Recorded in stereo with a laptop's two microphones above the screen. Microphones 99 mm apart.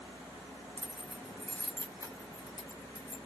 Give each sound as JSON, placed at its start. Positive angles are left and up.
{"t": 0.8, "sound": "keys jangling", "side_deg": -20, "distance_m": 0.8}